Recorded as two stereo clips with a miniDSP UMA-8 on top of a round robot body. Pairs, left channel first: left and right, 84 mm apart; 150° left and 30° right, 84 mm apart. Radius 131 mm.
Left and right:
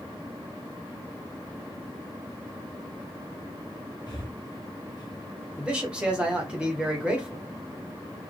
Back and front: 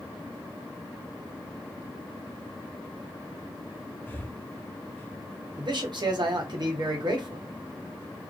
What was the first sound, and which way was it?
Breathing, 90° left.